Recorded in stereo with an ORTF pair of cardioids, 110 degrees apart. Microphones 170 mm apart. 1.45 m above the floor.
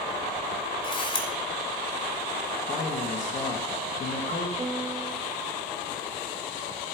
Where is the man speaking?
40° left, 2 m.